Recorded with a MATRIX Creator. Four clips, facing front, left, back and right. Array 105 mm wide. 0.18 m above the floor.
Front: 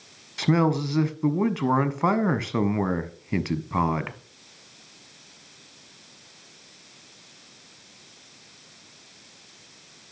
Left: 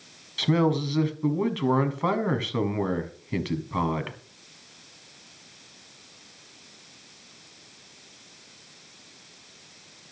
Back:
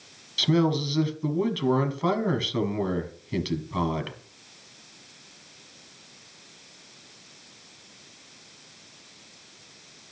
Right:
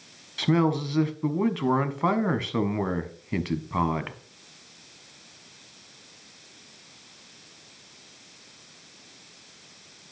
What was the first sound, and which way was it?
A man speaking, 10° right.